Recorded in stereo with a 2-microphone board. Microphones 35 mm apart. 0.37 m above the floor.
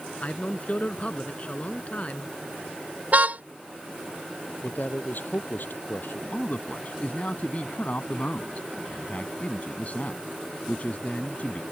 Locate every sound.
0.2 s a man speaking: 45° left (ahead or behind)
3.1 s a car horn: 50° right (ahead or behind)
4.6 s a man speaking: 65° left (ahead or behind)
6.3 s a man speaking: 45° left (ahead or behind)